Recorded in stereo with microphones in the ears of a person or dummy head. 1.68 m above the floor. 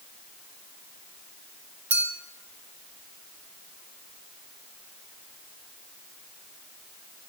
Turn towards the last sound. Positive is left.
turn(degrees=-10)  # may be behind; listen again after turning